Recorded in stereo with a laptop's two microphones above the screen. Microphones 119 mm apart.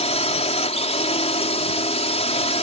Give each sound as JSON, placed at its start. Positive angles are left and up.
{"t": 0.0, "sound": "a drone", "side_deg": 65}